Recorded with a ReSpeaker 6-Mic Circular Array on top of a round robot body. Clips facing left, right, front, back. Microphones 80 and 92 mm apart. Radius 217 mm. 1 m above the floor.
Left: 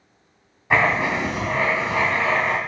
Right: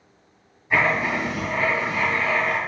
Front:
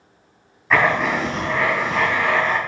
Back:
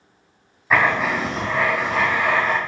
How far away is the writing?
About 2 m.